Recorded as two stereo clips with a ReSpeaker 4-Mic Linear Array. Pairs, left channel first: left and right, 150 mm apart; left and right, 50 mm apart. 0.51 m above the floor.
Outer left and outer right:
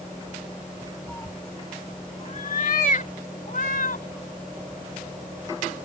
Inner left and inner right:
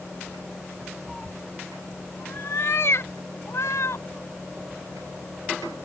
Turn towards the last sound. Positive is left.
turn(degrees=70)  # may be behind; listen again after turning